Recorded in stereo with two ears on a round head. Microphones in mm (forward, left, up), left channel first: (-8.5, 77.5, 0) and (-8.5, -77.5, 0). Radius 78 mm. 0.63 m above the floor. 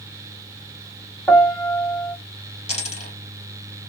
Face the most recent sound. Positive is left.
turn(degrees=40)  # may be behind; listen again after turning